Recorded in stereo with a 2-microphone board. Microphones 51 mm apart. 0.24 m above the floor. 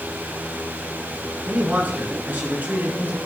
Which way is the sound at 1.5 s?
40° right (ahead or behind).